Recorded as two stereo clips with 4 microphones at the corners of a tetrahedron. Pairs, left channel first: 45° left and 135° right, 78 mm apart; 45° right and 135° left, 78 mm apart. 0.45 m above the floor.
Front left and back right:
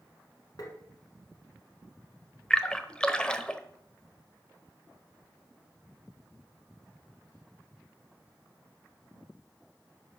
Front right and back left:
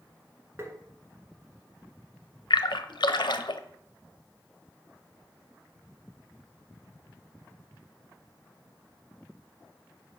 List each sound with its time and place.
0.6 s tapping: 80° left, 1.6 m
2.5 s a splash: 35° right, 0.7 m